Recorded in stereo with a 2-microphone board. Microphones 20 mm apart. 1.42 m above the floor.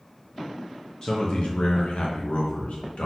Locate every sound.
1.0 s a man speaking: 25° left (ahead or behind), 0.6 m; by 3.1 s 85° left, 1.2 m